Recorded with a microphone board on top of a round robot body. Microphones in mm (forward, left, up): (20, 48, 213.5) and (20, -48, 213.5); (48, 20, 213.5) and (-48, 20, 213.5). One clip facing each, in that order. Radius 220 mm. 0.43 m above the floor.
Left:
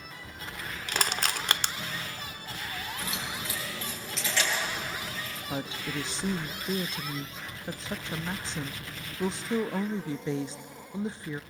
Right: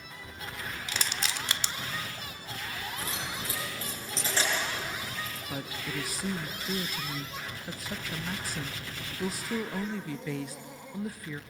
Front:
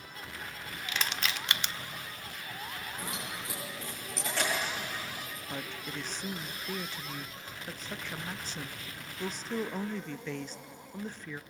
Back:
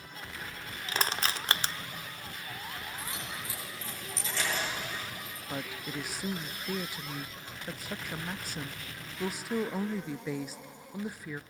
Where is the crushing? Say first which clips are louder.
Left 6 dB, back 3 dB; 125° left, 0.9 m.